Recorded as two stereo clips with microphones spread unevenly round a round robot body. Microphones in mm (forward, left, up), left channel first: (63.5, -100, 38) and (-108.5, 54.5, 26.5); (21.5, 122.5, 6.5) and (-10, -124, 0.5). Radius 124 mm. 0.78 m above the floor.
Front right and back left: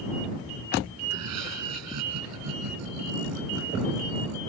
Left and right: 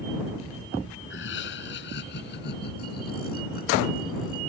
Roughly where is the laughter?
Behind left.